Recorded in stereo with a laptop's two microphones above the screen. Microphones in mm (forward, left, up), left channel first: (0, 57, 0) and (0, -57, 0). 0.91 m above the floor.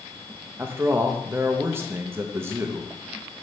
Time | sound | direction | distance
0.6 | a man speaking | 20° right (ahead or behind) | 0.6 m